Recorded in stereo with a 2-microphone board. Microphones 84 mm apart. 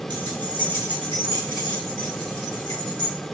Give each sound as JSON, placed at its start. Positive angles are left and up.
{"t": 0.1, "sound": "keys jangling", "side_deg": -50, "distance_m": 1.1}